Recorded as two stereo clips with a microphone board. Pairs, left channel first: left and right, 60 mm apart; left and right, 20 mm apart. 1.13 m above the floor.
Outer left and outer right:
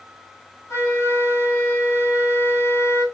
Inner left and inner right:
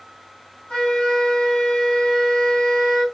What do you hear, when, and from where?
0.7 s a flute: 60° left (ahead or behind), 2.5 m